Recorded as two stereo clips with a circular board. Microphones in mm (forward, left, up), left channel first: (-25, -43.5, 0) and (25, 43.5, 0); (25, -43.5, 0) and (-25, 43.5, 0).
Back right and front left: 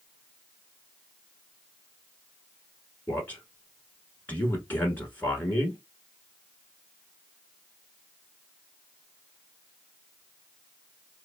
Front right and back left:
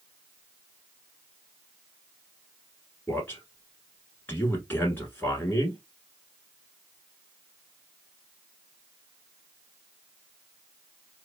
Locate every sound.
3.1 s a man speaking: 85° right, 1.1 m